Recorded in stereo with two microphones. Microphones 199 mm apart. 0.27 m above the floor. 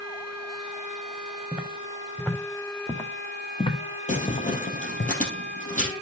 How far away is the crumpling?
About 3 m.